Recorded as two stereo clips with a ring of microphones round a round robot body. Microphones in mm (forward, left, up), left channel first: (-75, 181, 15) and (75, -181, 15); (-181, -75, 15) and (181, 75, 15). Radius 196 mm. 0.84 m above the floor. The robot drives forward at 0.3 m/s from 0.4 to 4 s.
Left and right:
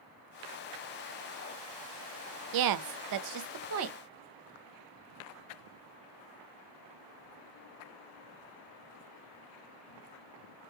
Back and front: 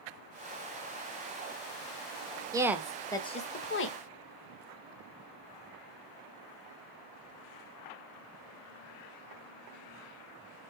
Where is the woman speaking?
55° right, 0.6 m; by 4.0 s 115° right, 0.6 m.